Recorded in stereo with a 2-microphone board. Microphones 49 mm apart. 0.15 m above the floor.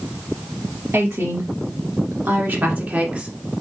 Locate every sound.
0.9 s a woman speaking: 60° right (ahead or behind), 2.5 m; by 3.3 s 25° right (ahead or behind), 1.3 m